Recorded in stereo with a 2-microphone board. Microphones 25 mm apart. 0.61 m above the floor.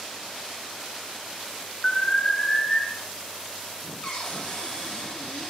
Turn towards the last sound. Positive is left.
turn(degrees=55)  # may be behind; listen again after turning